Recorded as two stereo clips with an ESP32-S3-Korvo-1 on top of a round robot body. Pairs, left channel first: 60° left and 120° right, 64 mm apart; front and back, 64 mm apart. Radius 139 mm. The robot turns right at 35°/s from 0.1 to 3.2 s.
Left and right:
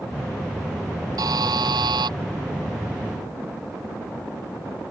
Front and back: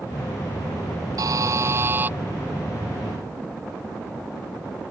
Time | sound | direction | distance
1.2 | a buzzer | 150° right | ?